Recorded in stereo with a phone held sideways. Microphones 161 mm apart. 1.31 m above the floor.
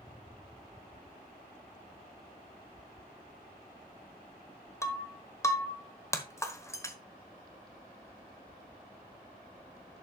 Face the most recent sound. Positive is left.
turn(degrees=20)  # may be behind; listen again after turning